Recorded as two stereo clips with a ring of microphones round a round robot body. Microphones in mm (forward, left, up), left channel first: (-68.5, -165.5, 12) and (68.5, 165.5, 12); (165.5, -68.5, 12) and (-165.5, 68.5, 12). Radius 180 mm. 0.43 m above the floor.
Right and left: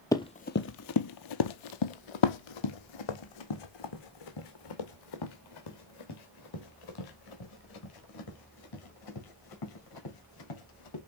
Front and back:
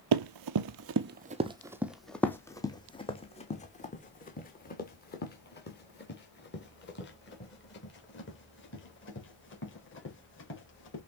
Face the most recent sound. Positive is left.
turn(degrees=-80)